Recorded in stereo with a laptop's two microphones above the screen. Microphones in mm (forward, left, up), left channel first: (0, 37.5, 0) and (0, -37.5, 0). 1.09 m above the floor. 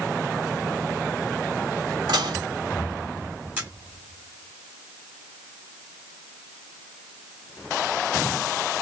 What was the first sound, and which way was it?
Dishes clattering, 80° right.